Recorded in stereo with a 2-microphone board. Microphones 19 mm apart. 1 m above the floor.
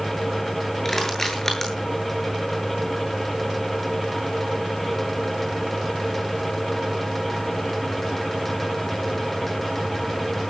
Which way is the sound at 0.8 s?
20° left (ahead or behind).